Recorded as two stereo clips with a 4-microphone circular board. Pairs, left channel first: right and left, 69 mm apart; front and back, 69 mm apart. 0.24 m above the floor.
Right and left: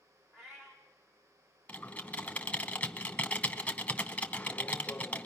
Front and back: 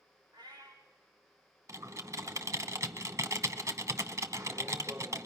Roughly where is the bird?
I don't hear a bird.